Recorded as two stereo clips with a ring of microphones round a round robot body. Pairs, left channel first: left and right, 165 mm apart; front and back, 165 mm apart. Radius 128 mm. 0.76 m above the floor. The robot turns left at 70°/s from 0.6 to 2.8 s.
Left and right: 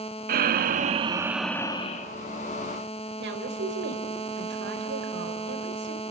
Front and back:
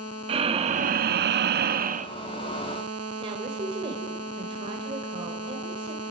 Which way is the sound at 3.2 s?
110° right.